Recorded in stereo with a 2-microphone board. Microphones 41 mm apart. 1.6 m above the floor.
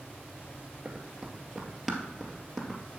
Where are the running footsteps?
15° right (ahead or behind), 1.6 m; by 3.0 s 15° left (ahead or behind), 1.9 m.